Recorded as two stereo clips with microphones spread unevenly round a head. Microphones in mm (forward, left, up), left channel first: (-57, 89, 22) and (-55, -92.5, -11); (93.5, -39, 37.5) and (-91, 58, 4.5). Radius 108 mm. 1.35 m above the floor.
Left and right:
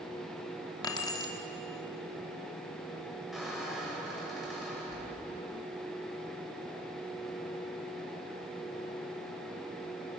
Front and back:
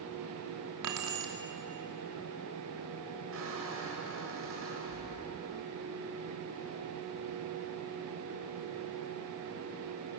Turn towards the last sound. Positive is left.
turn(degrees=180)